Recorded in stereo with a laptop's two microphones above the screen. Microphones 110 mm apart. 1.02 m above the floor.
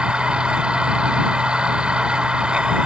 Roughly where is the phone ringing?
I don't hear a phone ringing.